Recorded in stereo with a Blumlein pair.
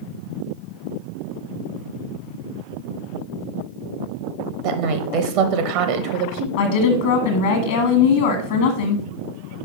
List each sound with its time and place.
4.6 s a woman speaking: 45° right, 0.9 m
6.6 s a woman speaking: 55° left, 1.5 m